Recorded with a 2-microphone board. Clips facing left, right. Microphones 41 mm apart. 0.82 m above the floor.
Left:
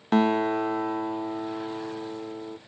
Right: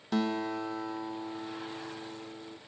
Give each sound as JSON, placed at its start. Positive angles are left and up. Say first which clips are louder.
{"t": 0.1, "sound": "a guitar", "louder": "left 9 dB", "side_deg": 40, "distance_m": 0.6}